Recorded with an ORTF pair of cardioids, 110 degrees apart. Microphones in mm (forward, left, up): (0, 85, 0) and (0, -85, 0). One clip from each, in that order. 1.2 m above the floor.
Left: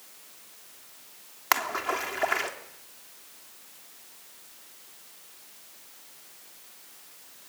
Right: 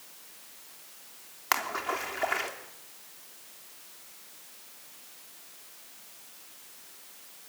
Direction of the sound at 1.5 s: 20° left.